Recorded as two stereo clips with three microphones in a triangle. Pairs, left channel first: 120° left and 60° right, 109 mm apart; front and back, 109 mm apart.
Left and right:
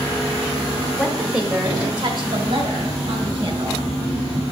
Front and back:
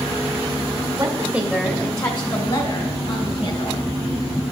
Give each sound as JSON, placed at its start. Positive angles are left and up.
{"t": 1.0, "sound": "a woman speaking", "azimuth_deg": 180, "distance_m": 1.2}